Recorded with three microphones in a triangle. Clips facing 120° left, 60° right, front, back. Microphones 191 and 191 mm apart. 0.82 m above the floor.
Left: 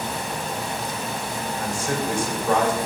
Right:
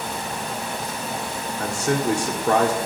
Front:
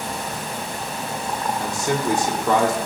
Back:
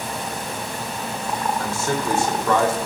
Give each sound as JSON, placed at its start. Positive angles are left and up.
{"t": 1.6, "sound": "a man speaking", "azimuth_deg": -75, "distance_m": 1.8}